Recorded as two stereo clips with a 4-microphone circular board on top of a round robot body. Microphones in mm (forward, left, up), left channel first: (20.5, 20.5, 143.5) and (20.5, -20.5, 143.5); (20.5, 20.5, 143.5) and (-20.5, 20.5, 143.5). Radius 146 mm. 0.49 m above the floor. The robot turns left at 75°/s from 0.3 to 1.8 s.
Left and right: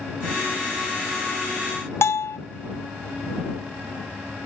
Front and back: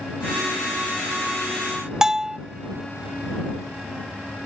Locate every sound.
2.0 s a bell: 105° left